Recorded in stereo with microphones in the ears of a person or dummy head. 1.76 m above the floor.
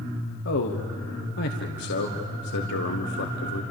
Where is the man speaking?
55° left (ahead or behind), 1.2 m.